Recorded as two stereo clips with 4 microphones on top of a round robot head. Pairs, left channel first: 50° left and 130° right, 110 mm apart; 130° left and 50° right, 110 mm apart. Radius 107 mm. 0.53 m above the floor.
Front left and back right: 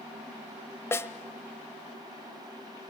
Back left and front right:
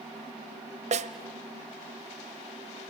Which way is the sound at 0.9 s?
20° right.